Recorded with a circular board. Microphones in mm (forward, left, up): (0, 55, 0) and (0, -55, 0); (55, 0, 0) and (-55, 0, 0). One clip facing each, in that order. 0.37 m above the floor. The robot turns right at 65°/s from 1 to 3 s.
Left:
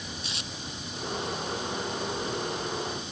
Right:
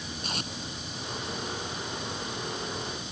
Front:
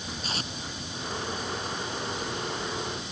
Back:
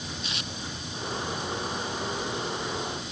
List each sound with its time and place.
0.2 s tape being pulled: 50° right